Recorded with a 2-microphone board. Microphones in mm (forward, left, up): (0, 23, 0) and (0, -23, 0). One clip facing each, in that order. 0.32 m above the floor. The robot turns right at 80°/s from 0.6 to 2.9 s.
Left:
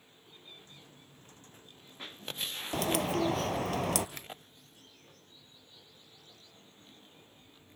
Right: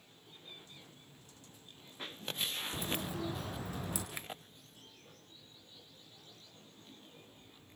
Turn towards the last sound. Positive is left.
turn(degrees=-15)  # may be behind; listen again after turning